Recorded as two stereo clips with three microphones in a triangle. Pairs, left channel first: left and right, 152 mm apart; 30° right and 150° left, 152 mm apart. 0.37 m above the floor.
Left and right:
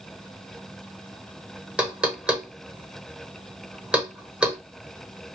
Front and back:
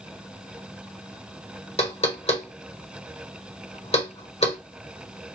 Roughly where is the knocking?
Ahead.